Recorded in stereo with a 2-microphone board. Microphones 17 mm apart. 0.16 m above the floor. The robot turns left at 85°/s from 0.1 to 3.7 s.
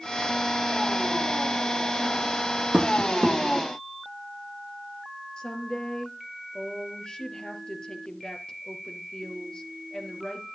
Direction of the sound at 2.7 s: 70° right (ahead or behind).